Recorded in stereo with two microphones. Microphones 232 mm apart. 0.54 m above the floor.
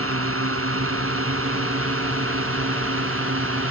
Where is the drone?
70° right (ahead or behind); by 3.7 s 65° right (ahead or behind).